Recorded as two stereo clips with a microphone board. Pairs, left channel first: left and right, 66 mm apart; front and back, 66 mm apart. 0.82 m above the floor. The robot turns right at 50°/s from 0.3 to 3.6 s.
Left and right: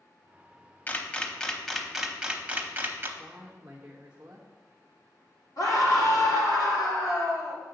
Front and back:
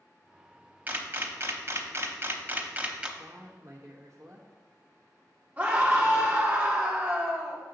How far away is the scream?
About 2 m.